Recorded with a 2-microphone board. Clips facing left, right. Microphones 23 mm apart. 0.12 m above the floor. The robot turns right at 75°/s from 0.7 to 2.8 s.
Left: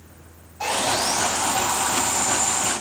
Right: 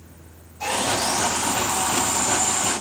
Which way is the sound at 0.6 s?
40° left.